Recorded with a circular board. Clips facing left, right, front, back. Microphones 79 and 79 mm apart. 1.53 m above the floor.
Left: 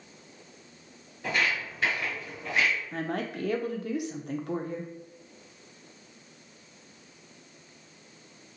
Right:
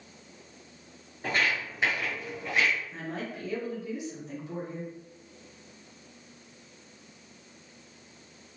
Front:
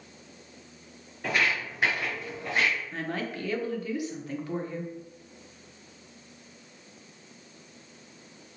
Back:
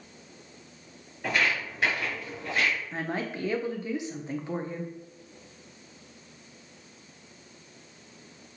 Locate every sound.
1.2 s footsteps: 85° right, 1.8 m; by 2.8 s 10° left, 1.6 m
2.9 s a woman speaking: 115° left, 0.5 m